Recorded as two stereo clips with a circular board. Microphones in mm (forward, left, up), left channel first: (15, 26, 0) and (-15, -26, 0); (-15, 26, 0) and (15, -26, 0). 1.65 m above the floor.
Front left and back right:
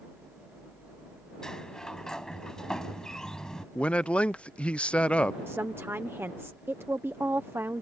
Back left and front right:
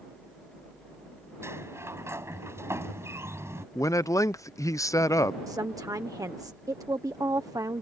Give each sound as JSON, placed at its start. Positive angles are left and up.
{"t": 1.4, "sound": "a sliding door", "azimuth_deg": -20}
{"t": 3.8, "sound": "a man speaking", "azimuth_deg": 130}
{"t": 5.5, "sound": "a woman speaking", "azimuth_deg": -70}